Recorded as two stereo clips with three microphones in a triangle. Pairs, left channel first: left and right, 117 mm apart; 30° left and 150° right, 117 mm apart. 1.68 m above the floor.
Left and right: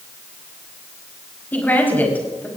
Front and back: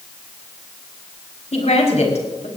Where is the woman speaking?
15° left, 4.5 m.